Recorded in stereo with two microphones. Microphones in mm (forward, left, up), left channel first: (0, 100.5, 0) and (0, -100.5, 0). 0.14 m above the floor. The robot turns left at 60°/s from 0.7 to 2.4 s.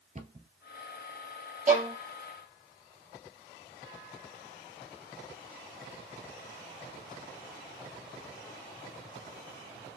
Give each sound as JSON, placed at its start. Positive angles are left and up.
{"t": 0.1, "sound": "a cupboard door", "side_deg": -35, "distance_m": 1.2}
{"t": 1.7, "sound": "a violin", "side_deg": -45, "distance_m": 4.0}